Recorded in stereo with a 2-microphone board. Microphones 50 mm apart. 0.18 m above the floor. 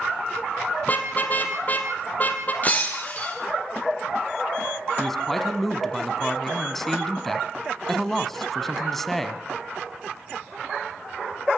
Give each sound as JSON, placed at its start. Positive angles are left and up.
{"t": 0.8, "sound": "a car horn", "side_deg": 35, "distance_m": 3.0}
{"t": 2.6, "sound": "breaking glass", "side_deg": 35, "distance_m": 5.0}
{"t": 5.0, "sound": "a man speaking", "side_deg": 5, "distance_m": 1.7}